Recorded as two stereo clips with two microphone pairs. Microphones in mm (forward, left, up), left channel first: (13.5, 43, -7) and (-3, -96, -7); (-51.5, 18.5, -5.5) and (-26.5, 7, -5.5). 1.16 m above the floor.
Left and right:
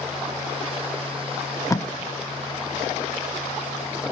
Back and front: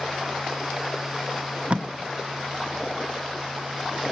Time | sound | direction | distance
1.7 | tape being pulled | 15° left | 0.8 m